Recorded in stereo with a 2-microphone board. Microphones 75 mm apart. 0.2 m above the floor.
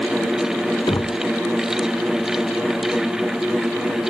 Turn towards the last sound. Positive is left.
turn(degrees=55)  # may be behind; listen again after turning